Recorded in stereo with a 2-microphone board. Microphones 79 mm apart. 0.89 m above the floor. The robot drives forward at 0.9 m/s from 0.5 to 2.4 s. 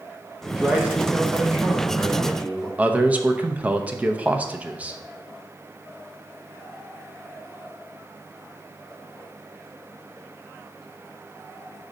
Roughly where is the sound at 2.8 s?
Centre.